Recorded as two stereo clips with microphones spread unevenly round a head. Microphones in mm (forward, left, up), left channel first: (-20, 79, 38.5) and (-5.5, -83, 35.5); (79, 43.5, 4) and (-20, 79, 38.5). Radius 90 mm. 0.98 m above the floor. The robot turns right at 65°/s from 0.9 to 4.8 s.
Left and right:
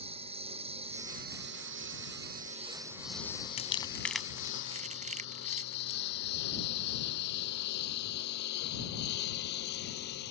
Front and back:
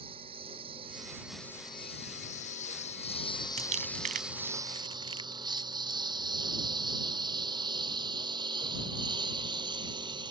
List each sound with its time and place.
0.0 s a lawn mower: 140° right; by 10.3 s 120° left
3.6 s crumpling: 145° left; by 6.0 s 135° right